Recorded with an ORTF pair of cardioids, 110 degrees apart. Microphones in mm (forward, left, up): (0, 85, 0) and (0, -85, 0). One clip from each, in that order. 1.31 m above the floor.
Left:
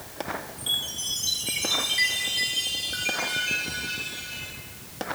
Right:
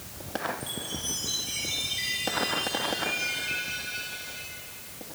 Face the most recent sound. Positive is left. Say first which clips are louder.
# left 7 dB
turn(degrees=65)